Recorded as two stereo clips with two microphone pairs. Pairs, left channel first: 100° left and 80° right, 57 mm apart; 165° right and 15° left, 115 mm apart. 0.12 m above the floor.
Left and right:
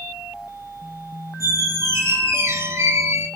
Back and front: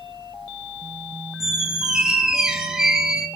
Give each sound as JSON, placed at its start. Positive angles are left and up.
{"t": 1.4, "sound": "a squeak", "azimuth_deg": -70, "distance_m": 0.6}